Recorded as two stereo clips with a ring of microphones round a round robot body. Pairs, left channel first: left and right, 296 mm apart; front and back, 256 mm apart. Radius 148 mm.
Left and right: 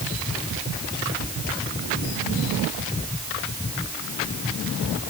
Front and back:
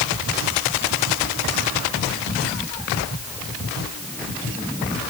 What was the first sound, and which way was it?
Only background noise.